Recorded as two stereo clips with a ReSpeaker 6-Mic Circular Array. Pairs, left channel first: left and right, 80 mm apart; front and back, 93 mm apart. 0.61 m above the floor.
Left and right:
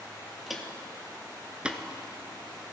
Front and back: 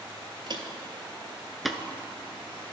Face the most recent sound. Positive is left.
turn(degrees=-15)